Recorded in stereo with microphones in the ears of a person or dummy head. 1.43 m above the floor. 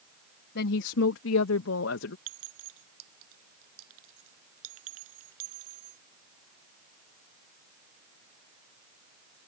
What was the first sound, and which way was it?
A woman speaking, 70° left (ahead or behind).